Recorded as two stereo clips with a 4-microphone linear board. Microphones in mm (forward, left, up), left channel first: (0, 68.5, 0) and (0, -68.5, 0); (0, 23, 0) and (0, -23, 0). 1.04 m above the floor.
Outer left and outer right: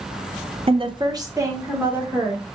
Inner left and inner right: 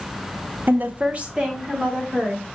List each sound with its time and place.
0.7 s a woman speaking: 45° right (ahead or behind), 0.5 m; by 2.4 s 10° right (ahead or behind), 1.6 m